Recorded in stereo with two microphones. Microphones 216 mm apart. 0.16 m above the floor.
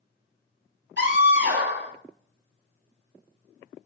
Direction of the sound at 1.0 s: 55° right (ahead or behind).